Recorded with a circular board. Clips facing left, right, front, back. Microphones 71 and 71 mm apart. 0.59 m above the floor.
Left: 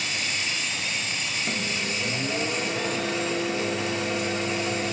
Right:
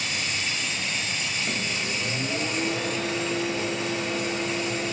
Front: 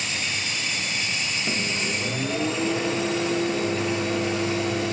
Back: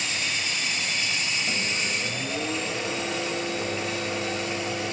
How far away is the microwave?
About 1.4 m.